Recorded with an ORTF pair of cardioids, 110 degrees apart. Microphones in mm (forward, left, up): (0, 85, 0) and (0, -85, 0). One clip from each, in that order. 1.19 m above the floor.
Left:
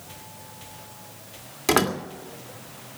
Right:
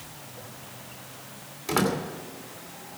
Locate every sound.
1.7 s a door slam: 55° left, 2.5 m